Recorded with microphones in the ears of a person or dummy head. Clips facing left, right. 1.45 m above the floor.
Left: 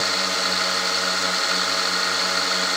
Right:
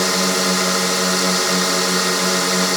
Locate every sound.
0.0 s a drone: 60° right (ahead or behind)